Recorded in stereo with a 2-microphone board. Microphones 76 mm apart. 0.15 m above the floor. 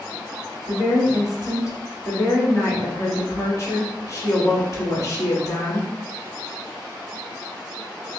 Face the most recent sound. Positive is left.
turn(degrees=40)  # may be behind; listen again after turning